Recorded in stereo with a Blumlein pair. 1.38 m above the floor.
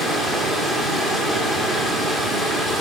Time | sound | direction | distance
0.0 | running water | straight ahead | 1.8 m